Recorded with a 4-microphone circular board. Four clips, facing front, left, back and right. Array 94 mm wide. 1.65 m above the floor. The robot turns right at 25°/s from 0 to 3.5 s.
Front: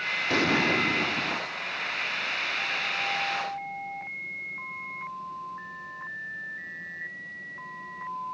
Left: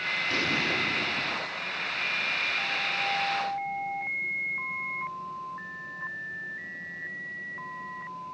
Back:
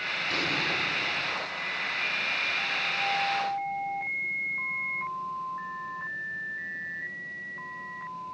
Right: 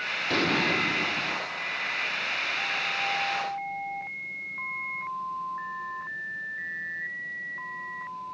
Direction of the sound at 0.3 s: 30° right.